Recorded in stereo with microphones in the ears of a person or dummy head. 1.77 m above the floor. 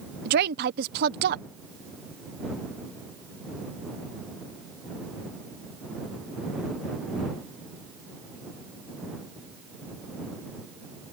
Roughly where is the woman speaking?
Right.